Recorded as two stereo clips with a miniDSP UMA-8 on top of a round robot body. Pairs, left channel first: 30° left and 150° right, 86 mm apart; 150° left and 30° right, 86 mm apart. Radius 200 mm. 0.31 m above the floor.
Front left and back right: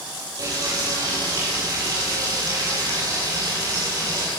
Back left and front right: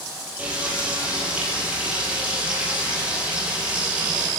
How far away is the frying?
About 9 m.